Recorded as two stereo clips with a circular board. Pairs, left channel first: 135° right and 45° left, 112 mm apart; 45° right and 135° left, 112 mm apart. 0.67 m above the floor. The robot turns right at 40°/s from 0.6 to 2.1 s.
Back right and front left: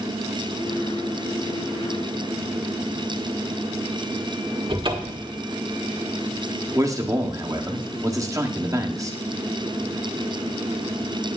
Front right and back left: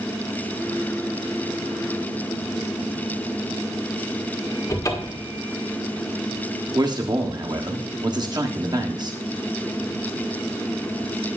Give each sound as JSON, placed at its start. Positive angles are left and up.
{"t": 4.7, "sound": "a cupboard door", "azimuth_deg": 10, "distance_m": 1.8}
{"t": 6.8, "sound": "a man speaking", "azimuth_deg": 95, "distance_m": 1.5}